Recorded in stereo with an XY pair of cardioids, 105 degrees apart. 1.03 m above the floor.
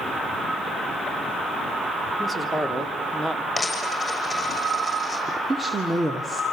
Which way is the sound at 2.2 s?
5° right.